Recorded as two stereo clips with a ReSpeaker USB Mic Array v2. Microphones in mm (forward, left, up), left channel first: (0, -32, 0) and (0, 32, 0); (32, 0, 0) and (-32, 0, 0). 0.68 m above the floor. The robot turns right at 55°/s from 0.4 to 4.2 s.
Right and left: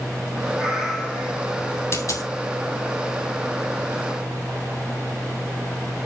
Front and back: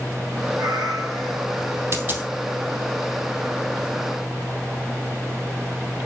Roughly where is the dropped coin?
Behind right.